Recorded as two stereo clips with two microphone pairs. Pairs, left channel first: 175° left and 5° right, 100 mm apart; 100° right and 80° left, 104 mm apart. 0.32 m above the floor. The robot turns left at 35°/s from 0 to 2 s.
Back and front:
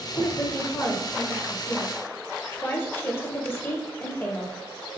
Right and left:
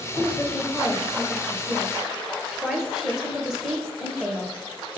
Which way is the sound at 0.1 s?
145° right.